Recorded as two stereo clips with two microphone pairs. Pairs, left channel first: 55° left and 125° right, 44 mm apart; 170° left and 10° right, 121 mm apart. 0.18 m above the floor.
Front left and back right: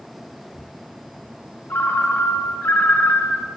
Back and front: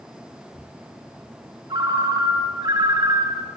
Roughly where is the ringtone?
Ahead left.